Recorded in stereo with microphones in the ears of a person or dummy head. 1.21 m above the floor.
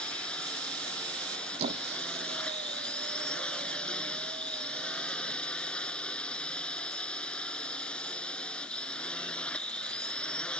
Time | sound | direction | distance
0.0 | a drone | 5° left (ahead or behind) | ?
1.6 | a squeak | 40° right (ahead or behind) | ?